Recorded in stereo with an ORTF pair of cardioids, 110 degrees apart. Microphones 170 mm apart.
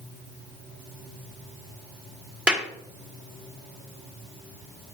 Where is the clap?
5° right, 0.9 m.